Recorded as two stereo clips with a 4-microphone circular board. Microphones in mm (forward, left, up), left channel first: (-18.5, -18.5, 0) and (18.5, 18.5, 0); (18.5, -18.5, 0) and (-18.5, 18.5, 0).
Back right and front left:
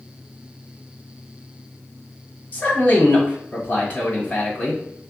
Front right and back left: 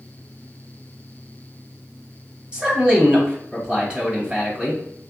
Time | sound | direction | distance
2.5 | a man speaking | 165° right | 1.8 m